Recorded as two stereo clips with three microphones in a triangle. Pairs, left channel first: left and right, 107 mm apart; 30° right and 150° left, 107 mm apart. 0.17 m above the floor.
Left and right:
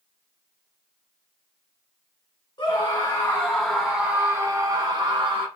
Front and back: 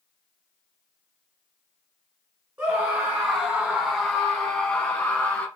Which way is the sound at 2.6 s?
90° left.